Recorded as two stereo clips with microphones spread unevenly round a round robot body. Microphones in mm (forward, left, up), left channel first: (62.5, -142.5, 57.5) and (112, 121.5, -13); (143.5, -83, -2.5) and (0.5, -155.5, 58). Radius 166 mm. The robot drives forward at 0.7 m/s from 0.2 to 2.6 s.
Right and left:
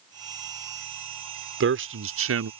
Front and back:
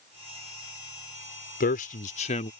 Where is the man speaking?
45° left; by 2.5 s 70° left.